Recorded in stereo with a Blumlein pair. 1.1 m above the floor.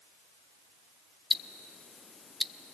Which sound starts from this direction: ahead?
Ticking, at 1.3 s.